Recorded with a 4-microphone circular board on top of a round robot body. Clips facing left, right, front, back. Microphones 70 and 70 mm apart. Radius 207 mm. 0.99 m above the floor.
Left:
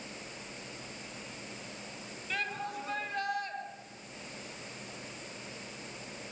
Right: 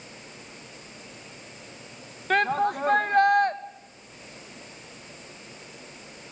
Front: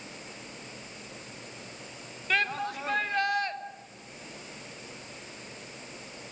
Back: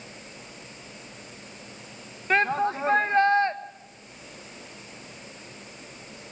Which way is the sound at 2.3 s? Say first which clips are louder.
Right 14 dB, back 7 dB; 120° right.